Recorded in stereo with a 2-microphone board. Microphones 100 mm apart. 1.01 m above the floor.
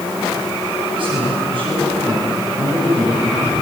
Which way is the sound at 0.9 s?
55° right (ahead or behind).